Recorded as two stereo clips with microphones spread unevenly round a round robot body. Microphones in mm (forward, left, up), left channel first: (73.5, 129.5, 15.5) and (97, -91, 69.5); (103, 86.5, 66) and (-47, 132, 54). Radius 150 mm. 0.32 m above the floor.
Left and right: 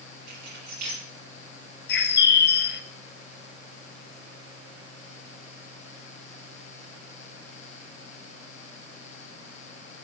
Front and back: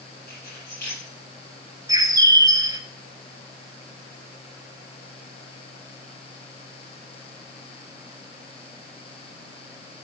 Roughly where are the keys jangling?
Right.